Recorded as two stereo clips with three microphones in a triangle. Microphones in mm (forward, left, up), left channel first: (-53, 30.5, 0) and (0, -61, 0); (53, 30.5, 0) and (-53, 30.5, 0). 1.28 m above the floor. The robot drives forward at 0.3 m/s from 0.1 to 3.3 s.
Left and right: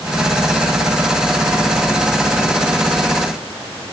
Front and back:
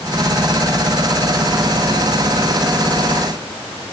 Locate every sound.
Only background noise.